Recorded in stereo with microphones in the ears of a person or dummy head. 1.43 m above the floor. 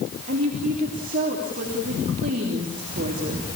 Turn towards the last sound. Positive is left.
turn(degrees=-40)  # may be behind; listen again after turning